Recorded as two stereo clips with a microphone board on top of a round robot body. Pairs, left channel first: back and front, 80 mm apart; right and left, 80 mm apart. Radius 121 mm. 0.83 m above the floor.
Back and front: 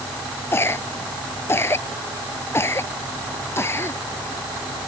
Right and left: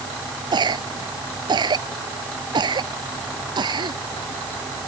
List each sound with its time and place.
0.5 s a cough: 120° left